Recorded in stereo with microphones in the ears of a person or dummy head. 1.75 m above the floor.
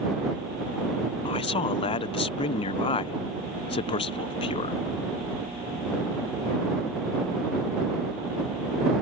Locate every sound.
1.2 s a man speaking: 35° left (ahead or behind)